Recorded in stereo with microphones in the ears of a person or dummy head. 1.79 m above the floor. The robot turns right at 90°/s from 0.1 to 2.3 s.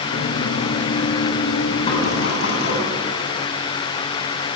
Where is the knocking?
25° left (ahead or behind), 8.5 m; by 2.8 s 65° left (ahead or behind), 8.5 m.